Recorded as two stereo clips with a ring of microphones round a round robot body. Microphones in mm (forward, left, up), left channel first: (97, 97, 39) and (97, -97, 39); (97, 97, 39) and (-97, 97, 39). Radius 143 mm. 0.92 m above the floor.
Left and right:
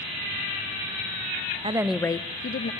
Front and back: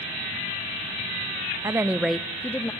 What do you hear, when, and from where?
1.6 s a woman speaking: 120° right, 0.7 m; by 2.7 s 75° left, 1.1 m